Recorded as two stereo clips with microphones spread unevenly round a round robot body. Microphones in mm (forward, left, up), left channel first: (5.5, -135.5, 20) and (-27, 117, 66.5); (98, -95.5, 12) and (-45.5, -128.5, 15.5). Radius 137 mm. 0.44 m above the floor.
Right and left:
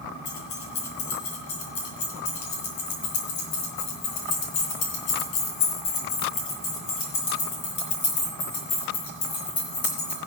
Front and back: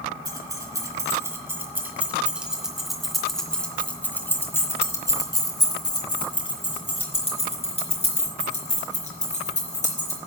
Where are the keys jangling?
105° right, 3.5 m; by 10.2 s 20° right, 4.5 m.